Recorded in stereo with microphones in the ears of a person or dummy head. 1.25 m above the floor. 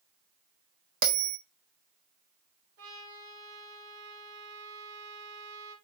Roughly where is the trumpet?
Right.